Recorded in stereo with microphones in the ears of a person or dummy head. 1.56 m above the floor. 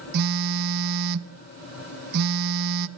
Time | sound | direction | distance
0.1 | a phone buzzing | 55° right (ahead or behind) | 0.6 m